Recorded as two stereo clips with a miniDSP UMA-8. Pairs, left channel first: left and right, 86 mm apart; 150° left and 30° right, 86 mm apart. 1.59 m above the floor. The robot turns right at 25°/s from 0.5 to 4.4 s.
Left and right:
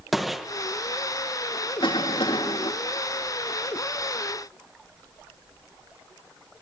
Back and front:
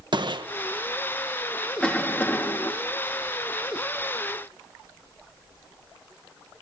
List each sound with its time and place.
0.1 s a gunshot: straight ahead, 1.6 m
1.8 s a cough: 70° left, 3.5 m; by 2.7 s 90° left, 3.5 m